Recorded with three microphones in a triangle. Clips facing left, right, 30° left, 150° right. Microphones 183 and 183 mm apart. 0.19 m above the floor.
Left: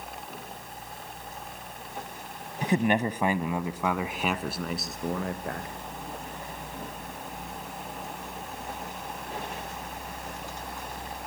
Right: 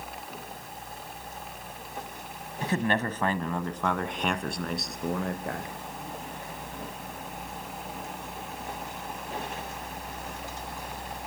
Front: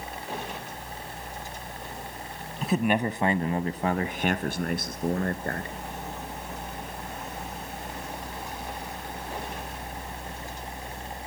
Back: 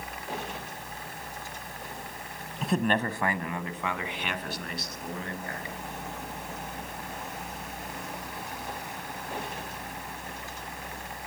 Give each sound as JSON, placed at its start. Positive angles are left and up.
{"t": 2.6, "sound": "a man speaking", "azimuth_deg": 120, "distance_m": 1.0}